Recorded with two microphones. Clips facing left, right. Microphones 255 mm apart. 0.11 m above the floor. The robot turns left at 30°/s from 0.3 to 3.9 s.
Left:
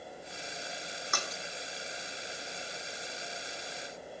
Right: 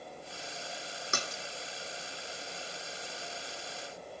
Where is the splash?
25° right (ahead or behind), 1.2 m; by 1.4 s 35° right (ahead or behind), 1.2 m.